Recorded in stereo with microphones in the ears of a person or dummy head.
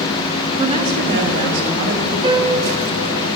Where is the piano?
30° right (ahead or behind), 0.9 m.